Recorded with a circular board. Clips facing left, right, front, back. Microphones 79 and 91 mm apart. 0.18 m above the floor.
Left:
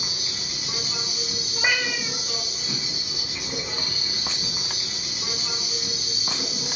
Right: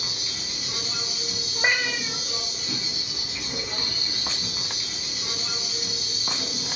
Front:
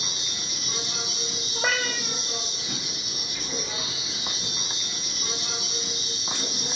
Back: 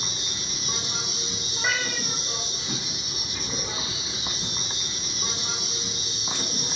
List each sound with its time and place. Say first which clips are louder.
0.0 s an insect: left 1 dB, back 1 dB; 160° left, 0.9 m
1.6 s a cat meowing: even, front 1 dB; 25° right, 0.5 m